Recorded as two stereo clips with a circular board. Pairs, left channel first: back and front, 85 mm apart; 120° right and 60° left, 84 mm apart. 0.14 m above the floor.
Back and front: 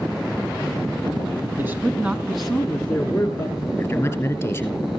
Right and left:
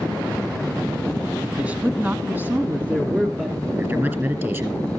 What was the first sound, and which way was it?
A man speaking, 10° left.